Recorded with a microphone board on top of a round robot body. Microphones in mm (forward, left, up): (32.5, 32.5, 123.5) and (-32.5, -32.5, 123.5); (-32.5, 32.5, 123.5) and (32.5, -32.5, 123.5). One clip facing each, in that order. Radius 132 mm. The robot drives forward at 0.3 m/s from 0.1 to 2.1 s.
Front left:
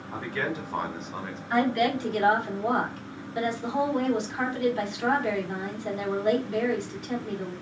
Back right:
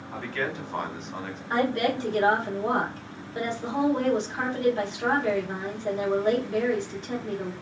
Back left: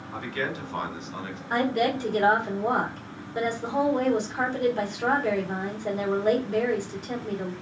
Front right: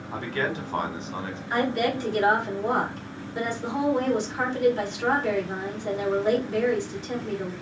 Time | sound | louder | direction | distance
0.1 | a man speaking | even, front right 3 dB | 30° right | 1.3 m
1.5 | a woman speaking | front left 1 dB, even | 165° left | 1.7 m